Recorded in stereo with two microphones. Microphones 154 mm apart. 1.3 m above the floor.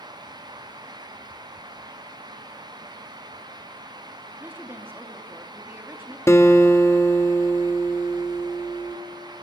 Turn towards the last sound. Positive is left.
turn(degrees=15)  # may be behind; listen again after turning